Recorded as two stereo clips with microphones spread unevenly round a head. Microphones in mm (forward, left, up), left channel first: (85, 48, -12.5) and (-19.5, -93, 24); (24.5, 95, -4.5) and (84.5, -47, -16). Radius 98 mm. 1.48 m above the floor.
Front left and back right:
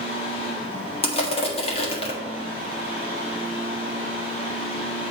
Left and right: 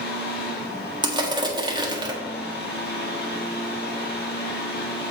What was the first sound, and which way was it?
A fan, 105° left.